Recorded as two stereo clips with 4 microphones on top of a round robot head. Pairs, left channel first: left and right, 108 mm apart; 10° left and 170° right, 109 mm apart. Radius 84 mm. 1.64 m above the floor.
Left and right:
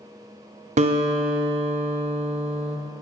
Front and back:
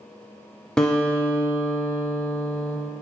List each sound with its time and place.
0.8 s a guitar: 75° right, 0.6 m